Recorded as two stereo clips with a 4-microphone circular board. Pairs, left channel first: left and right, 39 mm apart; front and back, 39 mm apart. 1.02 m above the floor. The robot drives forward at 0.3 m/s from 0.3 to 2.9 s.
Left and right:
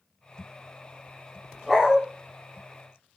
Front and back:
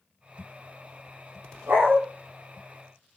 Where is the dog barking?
170° left, 8 m.